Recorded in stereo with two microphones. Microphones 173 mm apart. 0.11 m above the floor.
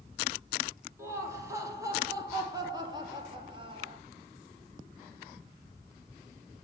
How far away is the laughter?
About 4 m.